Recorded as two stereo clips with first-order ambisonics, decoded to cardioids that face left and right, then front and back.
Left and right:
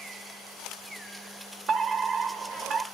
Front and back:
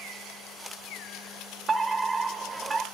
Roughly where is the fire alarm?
Behind right.